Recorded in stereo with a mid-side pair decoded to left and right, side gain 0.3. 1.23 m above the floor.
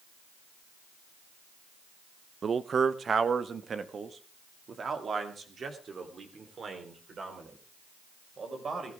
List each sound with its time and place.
2.4 s a man speaking: 55° right, 0.8 m; by 8.9 s 60° right, 6 m